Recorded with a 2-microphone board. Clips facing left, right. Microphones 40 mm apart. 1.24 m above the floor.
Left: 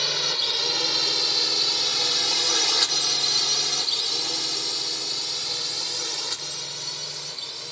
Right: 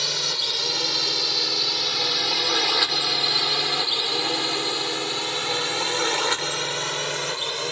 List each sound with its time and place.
0.0 s a drone: 5° left (ahead or behind); by 7.7 s 70° right (ahead or behind)